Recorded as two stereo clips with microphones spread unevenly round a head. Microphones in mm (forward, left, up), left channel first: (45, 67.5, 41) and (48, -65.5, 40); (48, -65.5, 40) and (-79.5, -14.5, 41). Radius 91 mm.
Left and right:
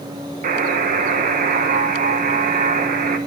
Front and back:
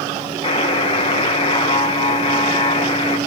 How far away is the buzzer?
About 1.1 m.